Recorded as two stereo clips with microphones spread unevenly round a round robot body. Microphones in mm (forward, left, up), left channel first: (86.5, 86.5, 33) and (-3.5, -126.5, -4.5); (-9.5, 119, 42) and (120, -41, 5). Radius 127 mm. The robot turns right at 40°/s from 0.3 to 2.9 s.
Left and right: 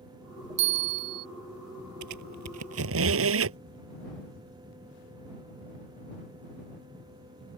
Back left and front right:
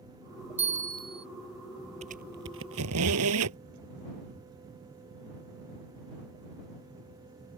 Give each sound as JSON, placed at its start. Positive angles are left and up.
{"t": 0.6, "sound": "a bell", "azimuth_deg": -120}
{"t": 2.0, "sound": "a squeak", "azimuth_deg": -120}